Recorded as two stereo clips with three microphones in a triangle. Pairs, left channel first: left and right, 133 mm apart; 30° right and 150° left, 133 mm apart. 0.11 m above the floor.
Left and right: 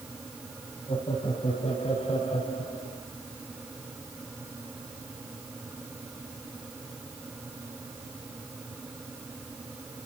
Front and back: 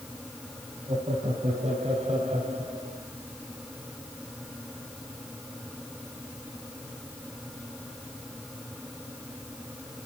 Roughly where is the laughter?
Behind left.